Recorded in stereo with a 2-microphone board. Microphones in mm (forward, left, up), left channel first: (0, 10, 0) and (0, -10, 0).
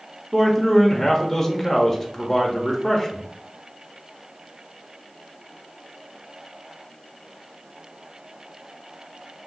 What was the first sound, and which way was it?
A man speaking, 10° left (ahead or behind).